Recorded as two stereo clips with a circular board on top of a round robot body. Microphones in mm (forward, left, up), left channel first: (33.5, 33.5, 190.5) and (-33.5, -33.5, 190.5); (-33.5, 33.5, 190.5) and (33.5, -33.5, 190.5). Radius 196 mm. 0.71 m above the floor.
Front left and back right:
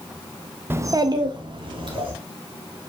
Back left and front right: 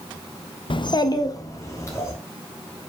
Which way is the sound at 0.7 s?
160° left.